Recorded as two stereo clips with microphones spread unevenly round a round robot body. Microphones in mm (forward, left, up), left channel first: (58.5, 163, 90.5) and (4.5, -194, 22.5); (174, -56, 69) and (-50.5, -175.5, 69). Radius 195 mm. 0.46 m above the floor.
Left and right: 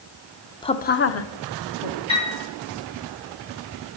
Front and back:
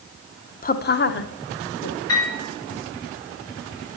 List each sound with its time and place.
0.6 s a woman speaking: 5° right, 1.0 m; by 2.0 s 60° left, 1.5 m
2.1 s a piano: 5° left, 8 m